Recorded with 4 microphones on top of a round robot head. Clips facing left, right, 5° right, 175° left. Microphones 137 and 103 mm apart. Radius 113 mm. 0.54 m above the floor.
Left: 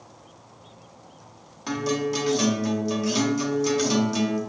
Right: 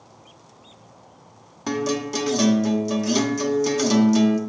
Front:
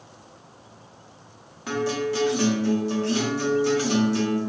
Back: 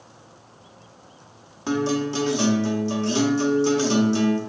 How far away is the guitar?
About 0.6 m.